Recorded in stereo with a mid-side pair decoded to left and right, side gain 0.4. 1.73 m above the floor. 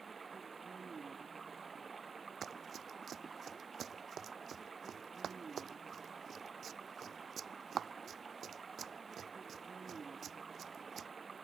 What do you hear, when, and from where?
0.0 s running water: 45° right
2.4 s running footsteps: 70° right